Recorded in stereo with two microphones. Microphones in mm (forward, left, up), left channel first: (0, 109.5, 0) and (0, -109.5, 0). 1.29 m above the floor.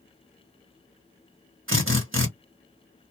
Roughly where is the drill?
Right.